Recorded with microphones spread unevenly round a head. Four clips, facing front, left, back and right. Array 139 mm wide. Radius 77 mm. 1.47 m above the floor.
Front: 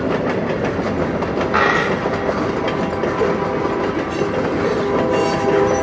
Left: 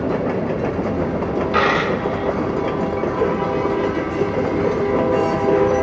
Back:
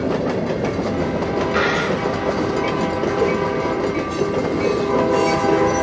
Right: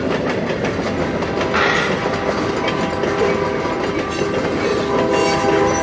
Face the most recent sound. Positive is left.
turn(degrees=-35)